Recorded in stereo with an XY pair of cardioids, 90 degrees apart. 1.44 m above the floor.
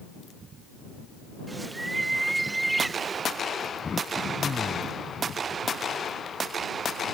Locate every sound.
1.5 s a bird: 20° right
3.8 s throat clearing: 40° left